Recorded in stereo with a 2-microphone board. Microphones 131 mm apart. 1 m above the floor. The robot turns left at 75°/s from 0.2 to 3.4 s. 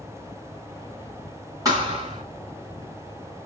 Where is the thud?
30° right, 2.5 m; by 2.2 s 75° right, 2.5 m.